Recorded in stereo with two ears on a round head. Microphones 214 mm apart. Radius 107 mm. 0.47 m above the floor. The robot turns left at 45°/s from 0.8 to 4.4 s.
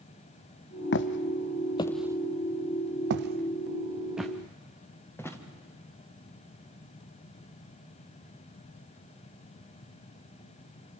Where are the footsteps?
50° left (ahead or behind), 0.9 m; by 5.4 s 10° left (ahead or behind), 2.5 m.